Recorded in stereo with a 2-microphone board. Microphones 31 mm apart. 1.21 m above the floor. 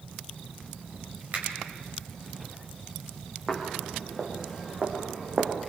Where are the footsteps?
5° right (ahead or behind), 3 m; by 5.5 s 35° right (ahead or behind), 3 m.